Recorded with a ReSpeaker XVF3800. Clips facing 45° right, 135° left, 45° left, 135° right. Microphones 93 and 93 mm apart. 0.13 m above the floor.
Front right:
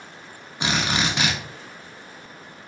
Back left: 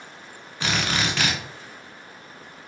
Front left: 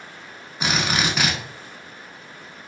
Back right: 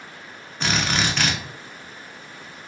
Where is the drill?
15° right, 0.6 m.